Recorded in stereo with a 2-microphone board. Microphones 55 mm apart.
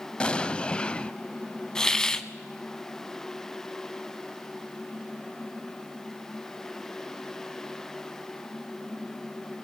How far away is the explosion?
About 0.5 m.